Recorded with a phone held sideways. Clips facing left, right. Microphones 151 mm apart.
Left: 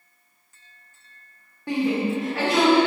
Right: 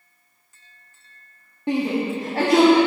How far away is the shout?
About 0.9 m.